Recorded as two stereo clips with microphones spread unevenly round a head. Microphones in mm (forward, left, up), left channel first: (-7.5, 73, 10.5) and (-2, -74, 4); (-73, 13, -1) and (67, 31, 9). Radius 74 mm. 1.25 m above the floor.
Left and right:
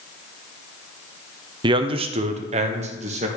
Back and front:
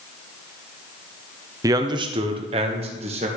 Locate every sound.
1.6 s a man speaking: 55° right, 0.7 m; by 3.3 s 45° right, 1.6 m